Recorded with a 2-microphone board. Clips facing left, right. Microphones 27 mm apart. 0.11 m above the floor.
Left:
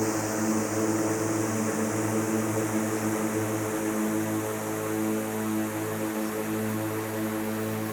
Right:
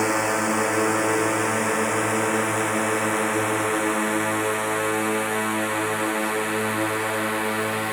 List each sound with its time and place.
0.0 s a drone: 80° right; by 7.9 s 75° right (ahead or behind)